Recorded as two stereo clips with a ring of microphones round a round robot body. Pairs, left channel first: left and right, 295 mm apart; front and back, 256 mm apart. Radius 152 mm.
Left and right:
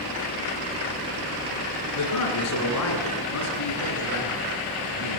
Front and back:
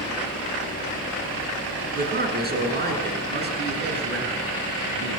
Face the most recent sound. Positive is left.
turn(degrees=135)